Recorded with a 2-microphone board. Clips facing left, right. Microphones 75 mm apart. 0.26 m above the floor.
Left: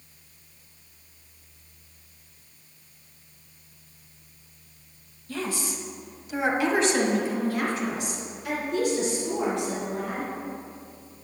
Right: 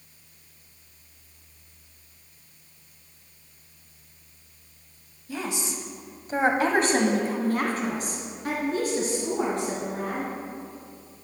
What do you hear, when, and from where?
5.3 s a woman speaking: 15° right (ahead or behind), 1.3 m; by 10.3 s 40° right (ahead or behind), 4 m